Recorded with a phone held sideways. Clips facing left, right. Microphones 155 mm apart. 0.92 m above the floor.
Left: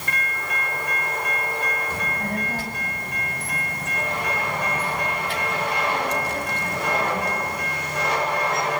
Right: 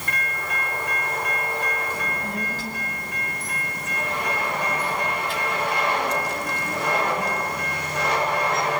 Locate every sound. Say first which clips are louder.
1.9 s a child speaking: left 2 dB; 55° left (ahead or behind), 5.5 m